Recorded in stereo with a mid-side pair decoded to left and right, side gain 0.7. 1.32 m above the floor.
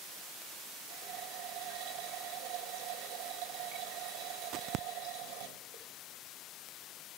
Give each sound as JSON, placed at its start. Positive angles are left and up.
{"t": 0.9, "sound": "a running tap", "azimuth_deg": -65, "distance_m": 5.0}